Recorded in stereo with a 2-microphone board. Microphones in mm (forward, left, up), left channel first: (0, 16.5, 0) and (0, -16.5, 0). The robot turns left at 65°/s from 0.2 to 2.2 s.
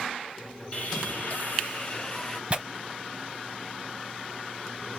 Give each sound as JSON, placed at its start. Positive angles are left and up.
{"t": 0.7, "sound": "sawing", "azimuth_deg": 125, "distance_m": 2.0}
{"t": 2.5, "sound": "tearing paper", "side_deg": -35, "distance_m": 0.6}